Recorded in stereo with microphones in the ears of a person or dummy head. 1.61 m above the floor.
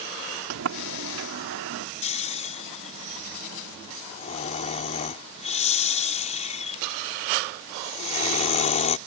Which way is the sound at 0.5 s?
85° right.